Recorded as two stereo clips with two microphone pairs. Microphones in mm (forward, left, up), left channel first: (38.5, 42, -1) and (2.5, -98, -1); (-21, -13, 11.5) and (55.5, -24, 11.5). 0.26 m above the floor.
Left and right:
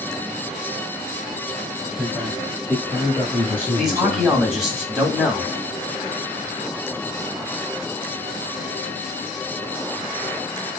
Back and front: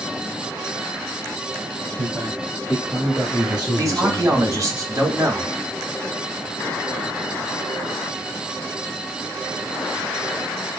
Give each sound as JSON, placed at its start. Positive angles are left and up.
{"t": 2.0, "sound": "a man speaking", "azimuth_deg": -30, "distance_m": 1.9}
{"t": 3.8, "sound": "a man speaking", "azimuth_deg": -15, "distance_m": 2.0}